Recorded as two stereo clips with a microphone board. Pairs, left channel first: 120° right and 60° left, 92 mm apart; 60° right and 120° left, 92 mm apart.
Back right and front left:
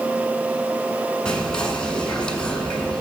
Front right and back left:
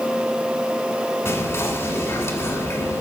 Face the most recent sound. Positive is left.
turn(degrees=-50)